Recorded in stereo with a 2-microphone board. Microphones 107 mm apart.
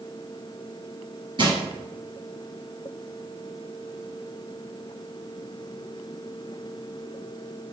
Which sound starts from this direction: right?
Crushing, at 1.4 s.